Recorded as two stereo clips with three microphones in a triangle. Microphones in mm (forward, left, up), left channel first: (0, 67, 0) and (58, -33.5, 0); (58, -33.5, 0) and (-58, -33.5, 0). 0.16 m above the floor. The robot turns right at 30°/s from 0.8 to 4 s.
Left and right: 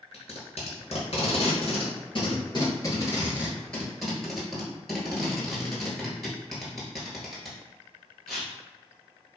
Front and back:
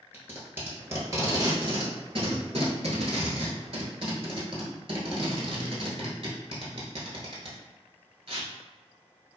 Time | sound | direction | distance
0.1 | tape being pulled | 110° left | 0.9 m